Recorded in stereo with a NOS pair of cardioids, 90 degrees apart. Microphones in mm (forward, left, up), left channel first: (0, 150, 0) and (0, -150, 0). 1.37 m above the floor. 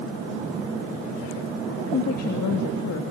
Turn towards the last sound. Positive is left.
turn(degrees=55)